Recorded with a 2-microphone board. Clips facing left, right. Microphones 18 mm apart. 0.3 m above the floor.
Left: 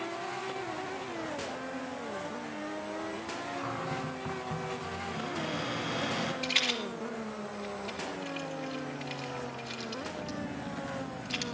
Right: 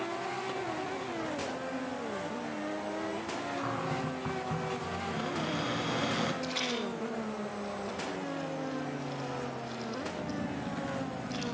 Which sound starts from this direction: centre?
A cupboard door, at 3.6 s.